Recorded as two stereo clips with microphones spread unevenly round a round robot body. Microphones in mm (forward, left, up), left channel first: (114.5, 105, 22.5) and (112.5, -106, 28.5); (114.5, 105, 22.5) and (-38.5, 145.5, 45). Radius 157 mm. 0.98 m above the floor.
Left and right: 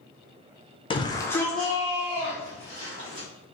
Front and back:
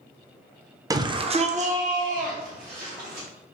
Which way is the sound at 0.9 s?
105° left.